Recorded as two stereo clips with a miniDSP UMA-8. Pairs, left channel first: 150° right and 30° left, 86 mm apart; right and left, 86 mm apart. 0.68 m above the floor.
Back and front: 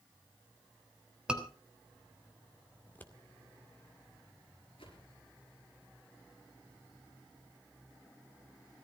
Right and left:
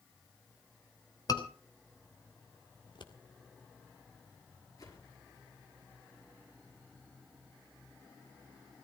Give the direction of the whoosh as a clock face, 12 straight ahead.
5 o'clock.